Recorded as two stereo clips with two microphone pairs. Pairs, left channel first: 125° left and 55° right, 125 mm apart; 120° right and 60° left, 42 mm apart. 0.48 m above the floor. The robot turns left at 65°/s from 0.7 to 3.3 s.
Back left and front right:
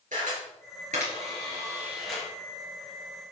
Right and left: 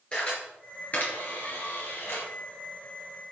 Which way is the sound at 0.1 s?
55° right.